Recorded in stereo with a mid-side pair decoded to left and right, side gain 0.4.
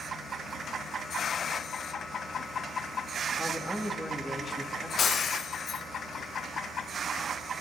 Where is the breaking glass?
60° left, 3.5 m.